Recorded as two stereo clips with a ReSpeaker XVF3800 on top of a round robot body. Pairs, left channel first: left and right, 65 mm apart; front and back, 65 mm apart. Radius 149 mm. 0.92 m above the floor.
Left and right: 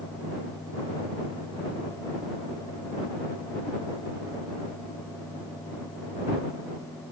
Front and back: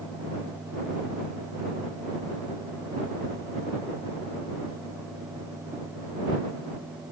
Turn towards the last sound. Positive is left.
No sound to turn to.